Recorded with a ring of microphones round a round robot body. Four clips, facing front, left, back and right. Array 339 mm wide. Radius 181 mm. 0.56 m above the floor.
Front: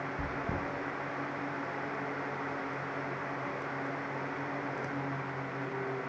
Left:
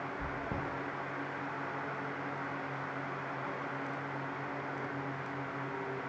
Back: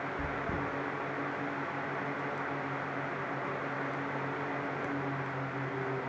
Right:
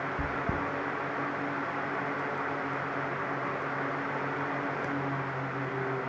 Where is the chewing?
80° right, 6.5 m.